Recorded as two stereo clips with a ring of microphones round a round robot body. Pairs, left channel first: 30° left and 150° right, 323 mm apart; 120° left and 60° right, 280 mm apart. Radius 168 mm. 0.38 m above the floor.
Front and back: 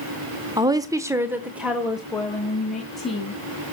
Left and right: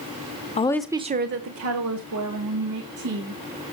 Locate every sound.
0.6 s a woman speaking: 145° left, 0.8 m; by 3.4 s 60° right, 3 m